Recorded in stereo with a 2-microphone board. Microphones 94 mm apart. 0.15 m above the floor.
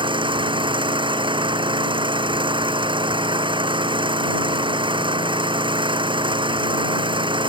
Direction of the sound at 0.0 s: 55° right (ahead or behind).